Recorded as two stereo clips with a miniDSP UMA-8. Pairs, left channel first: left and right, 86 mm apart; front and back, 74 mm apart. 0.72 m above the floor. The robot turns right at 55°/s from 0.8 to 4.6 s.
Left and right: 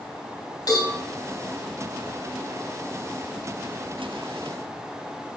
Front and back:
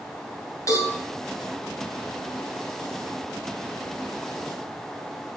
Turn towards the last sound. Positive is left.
turn(degrees=-105)